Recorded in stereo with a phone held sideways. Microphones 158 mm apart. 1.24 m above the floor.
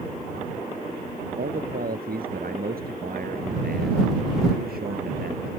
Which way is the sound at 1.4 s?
70° right (ahead or behind).